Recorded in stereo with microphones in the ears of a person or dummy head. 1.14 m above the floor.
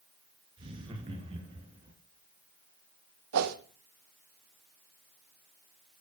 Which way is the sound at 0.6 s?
30° right (ahead or behind).